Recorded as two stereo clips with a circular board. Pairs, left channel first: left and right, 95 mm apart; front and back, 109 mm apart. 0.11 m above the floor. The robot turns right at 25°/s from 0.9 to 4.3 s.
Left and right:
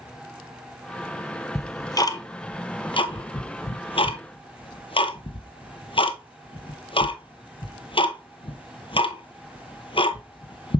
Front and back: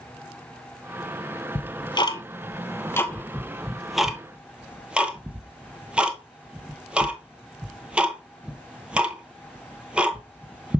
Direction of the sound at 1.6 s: 30° left.